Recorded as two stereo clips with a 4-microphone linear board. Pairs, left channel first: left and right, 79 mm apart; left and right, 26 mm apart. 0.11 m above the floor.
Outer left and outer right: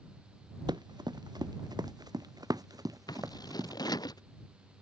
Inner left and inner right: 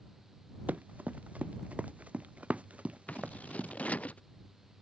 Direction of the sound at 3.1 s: 60° left (ahead or behind).